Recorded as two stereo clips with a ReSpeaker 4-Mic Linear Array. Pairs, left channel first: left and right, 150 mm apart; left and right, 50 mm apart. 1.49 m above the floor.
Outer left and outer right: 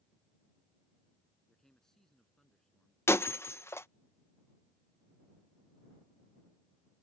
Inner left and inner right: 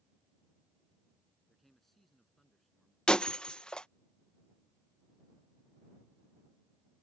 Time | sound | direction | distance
1.5 | a man speaking | 5° left (ahead or behind) | ?
3.1 | breaking glass | 15° left (ahead or behind) | ?